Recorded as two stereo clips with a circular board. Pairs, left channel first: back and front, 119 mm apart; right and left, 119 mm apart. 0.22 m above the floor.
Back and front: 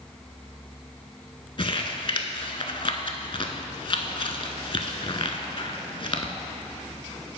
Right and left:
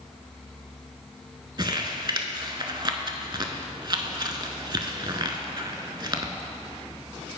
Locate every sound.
1.6 s crumpling: 140° left, 0.6 m